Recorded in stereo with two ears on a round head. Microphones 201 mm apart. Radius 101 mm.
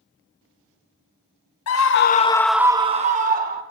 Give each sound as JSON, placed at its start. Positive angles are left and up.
{"t": 1.7, "sound": "a scream", "side_deg": 70, "distance_m": 0.9}